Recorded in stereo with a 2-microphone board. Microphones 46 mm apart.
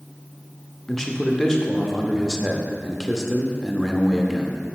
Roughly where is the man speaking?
Centre.